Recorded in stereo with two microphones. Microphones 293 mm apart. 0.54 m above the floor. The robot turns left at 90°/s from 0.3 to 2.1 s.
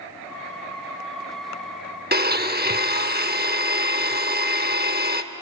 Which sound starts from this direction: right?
A blender, at 2.1 s.